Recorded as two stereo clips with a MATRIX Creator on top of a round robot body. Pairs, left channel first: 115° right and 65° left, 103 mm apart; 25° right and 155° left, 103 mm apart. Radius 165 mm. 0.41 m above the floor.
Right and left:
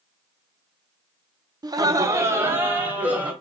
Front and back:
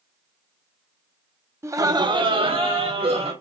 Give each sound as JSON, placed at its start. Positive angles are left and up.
{"t": 1.6, "sound": "laughter", "azimuth_deg": 100, "distance_m": 1.1}